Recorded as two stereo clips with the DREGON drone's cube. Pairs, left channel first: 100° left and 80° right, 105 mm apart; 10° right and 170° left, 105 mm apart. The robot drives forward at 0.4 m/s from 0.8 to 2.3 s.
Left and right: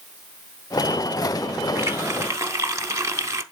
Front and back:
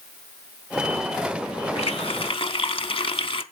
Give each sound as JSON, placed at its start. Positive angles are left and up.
{"t": 1.8, "sound": "a running tap", "azimuth_deg": -15, "distance_m": 0.7}